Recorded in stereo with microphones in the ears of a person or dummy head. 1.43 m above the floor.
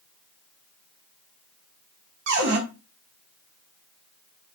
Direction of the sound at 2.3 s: 55° right (ahead or behind).